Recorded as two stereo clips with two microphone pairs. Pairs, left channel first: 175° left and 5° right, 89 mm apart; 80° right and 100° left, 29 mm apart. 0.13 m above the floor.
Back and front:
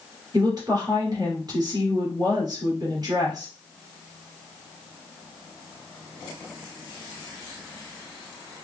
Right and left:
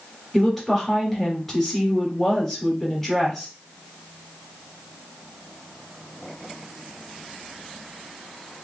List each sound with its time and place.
0.3 s a woman speaking: 5° left, 2.5 m